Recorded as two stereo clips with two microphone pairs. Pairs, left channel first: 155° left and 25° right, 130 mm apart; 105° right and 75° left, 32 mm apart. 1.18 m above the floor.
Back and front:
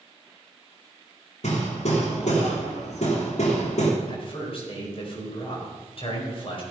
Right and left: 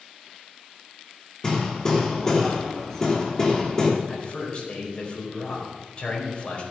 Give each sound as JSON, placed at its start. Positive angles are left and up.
{"t": 1.4, "sound": "hammering", "azimuth_deg": -175, "distance_m": 3.0}
{"t": 4.1, "sound": "a man speaking", "azimuth_deg": -160, "distance_m": 4.5}